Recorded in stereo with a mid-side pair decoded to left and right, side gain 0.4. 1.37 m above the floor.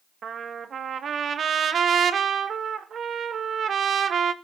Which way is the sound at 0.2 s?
55° right.